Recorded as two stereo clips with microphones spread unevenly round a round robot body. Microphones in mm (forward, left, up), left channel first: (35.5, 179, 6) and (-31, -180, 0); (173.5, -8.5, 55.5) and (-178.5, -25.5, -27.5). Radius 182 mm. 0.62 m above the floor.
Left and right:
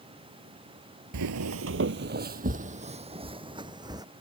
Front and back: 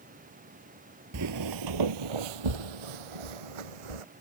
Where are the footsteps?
125° right; by 4.0 s straight behind.